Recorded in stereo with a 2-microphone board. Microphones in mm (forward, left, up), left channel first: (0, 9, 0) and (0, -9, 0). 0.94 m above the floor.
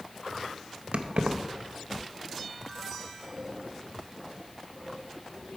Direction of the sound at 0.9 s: 80° right.